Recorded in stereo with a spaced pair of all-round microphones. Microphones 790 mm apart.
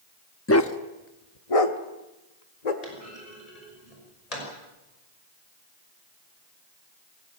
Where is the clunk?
45° left (ahead or behind), 5.5 m.